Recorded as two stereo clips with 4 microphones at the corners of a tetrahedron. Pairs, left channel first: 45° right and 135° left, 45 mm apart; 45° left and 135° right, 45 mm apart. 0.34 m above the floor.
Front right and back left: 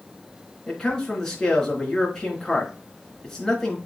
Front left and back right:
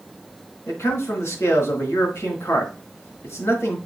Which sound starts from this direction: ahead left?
A man speaking, at 0.7 s.